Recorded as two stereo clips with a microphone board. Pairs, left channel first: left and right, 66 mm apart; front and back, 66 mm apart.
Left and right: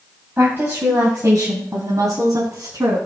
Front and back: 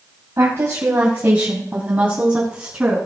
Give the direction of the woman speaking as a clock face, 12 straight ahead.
5 o'clock.